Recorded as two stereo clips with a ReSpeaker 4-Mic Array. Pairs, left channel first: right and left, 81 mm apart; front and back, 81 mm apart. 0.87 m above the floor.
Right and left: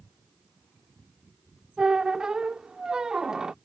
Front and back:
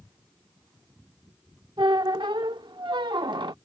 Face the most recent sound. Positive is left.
turn(degrees=170)